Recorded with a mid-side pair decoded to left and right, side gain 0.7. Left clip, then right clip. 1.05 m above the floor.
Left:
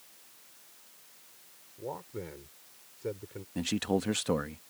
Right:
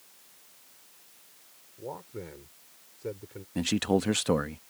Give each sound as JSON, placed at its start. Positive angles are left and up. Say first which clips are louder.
{"t": 1.8, "sound": "a man speaking", "louder": "even", "azimuth_deg": 0}
{"t": 3.5, "sound": "a man speaking", "louder": "right 4 dB", "azimuth_deg": -20}